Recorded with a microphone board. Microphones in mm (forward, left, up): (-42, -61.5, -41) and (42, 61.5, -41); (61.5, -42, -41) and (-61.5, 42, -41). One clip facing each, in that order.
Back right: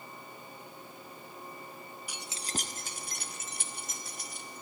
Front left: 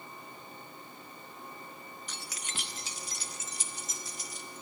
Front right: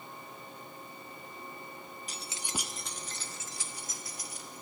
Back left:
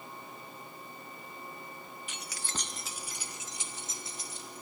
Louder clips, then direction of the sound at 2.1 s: Back right 7 dB, front right 2 dB; 50° right.